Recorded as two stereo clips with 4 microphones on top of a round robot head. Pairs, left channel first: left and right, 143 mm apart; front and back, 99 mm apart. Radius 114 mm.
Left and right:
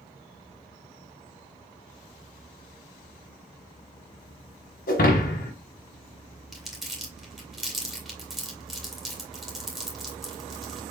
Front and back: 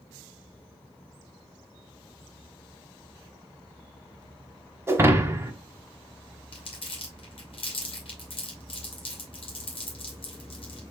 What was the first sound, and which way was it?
Breaking glass, 120° left.